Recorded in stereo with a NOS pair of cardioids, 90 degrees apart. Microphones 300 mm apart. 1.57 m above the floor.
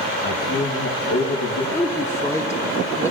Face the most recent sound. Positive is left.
turn(degrees=10)